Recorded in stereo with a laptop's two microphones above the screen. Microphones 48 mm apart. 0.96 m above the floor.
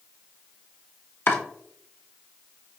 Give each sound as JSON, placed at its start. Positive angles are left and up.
{"t": 1.3, "sound": "chopping", "side_deg": 55, "distance_m": 0.8}